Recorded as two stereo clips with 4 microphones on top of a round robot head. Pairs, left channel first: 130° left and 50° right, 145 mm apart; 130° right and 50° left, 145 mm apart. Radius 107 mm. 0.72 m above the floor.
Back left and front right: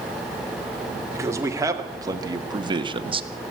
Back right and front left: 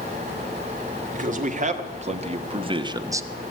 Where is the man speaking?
20° left, 2 m; by 3.3 s 20° right, 1.0 m.